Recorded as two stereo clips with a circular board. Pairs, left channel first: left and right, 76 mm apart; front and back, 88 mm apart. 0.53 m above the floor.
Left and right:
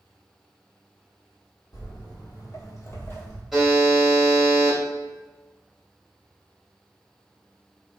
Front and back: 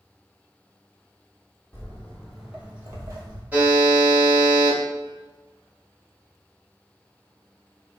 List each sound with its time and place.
1.7 s footsteps: 65° left, 1.1 m; by 3.4 s 155° left, 0.9 m
3.5 s a buzzer: 175° right, 1.3 m